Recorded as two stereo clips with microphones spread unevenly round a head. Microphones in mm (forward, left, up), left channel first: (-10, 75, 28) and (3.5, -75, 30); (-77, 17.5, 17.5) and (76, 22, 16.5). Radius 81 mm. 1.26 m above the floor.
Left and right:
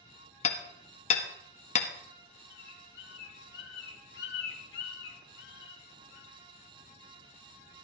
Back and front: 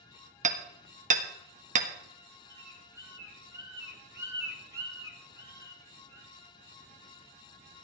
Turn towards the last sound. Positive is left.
turn(degrees=70)